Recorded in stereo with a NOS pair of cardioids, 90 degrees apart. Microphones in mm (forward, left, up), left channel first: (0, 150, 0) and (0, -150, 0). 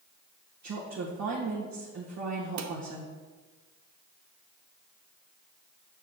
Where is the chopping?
No chopping in this recording.